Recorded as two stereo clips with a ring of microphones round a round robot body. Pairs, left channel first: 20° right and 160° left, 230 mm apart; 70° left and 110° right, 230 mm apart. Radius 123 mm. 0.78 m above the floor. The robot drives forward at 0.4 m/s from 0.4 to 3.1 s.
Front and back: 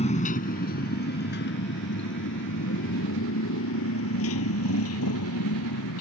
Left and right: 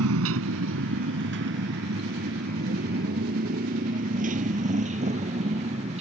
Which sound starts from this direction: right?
A motorcycle, at 0.0 s.